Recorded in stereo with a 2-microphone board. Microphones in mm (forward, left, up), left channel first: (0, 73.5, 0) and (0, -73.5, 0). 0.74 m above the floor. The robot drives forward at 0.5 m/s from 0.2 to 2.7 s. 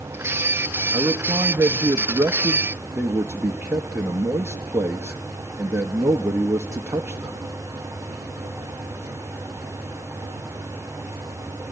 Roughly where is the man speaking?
Centre.